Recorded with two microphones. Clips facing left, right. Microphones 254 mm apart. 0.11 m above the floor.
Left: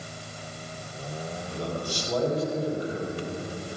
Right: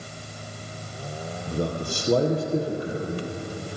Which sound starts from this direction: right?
A man speaking, at 1.5 s.